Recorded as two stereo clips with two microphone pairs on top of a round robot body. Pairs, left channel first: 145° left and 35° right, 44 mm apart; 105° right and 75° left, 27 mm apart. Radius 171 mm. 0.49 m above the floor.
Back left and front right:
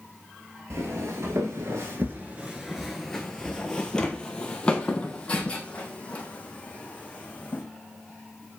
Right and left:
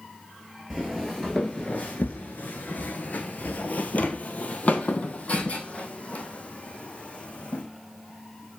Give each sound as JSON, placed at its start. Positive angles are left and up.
{"t": 0.7, "sound": "footsteps", "azimuth_deg": 0, "distance_m": 0.9}